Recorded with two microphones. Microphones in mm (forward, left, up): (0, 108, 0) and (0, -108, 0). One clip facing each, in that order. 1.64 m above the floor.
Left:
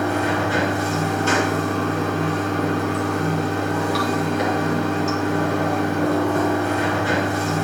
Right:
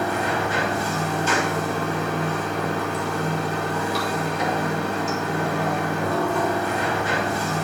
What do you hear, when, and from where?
0.0 s running water: 70° left (ahead or behind), 3.5 m